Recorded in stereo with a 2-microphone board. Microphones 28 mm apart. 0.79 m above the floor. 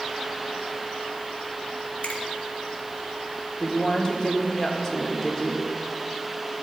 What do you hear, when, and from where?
2.0 s a finger snap: 50° left (ahead or behind), 1.7 m
3.6 s a woman speaking: 15° left (ahead or behind), 1.7 m